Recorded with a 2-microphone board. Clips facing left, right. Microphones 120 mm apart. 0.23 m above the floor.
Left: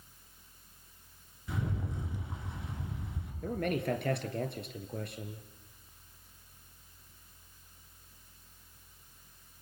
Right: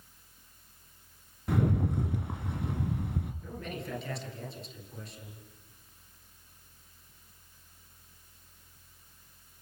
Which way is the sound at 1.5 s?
65° right (ahead or behind).